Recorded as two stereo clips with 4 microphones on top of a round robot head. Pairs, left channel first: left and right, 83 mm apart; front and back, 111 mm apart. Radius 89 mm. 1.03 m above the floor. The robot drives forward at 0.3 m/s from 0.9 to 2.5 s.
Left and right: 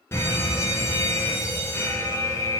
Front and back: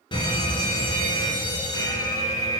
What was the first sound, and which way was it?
A fire alarm, 35° left.